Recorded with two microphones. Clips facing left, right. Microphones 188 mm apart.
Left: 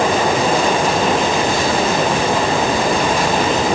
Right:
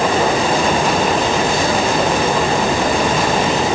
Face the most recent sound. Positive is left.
No sound to turn to.